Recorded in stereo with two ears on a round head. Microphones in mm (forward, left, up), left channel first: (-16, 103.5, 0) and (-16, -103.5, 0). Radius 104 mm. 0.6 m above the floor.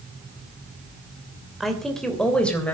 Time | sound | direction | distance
1.6 | a woman speaking | centre (ahead or behind) | 3 m